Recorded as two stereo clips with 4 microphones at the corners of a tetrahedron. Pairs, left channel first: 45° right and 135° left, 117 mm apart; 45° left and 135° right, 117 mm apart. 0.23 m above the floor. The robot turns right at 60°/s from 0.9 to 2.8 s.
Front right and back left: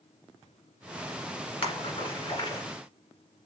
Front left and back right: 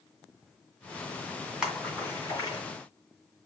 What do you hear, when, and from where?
1.6 s a splash: 50° right, 1.8 m; by 2.6 s 5° left, 1.8 m